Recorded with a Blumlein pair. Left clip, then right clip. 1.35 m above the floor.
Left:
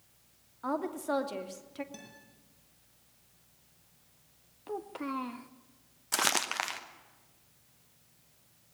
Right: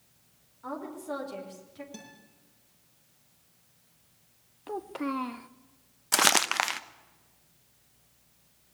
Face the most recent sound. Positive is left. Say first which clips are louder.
# right 6 dB
turn(degrees=-20)